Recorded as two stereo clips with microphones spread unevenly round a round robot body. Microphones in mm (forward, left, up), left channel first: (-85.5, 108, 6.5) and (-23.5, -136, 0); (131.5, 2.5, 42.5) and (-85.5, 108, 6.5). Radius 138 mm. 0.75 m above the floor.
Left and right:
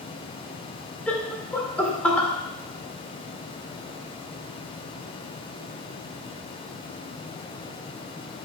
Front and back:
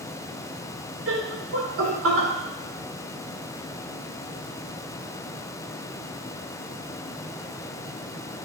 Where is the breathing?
I don't hear breathing.